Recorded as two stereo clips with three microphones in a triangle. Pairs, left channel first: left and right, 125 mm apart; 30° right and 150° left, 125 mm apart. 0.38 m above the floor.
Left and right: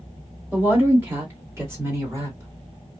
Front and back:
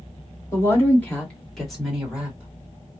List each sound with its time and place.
0.5 s a woman speaking: 40° right, 1.4 m; by 2.5 s 140° right, 1.7 m